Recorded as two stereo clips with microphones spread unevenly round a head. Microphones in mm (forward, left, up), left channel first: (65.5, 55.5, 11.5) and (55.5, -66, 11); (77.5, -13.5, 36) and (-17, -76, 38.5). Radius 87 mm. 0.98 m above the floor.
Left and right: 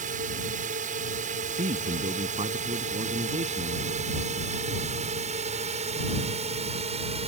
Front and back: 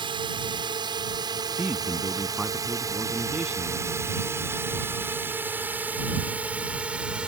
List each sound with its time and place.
0.0 s a drone: 105° right; by 7.3 s 65° right
1.6 s a man speaking: 65° right